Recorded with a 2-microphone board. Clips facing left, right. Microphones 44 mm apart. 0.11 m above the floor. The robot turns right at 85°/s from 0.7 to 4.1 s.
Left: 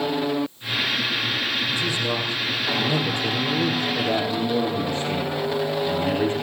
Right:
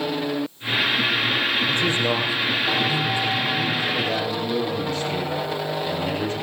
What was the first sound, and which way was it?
A man speaking, 65° right.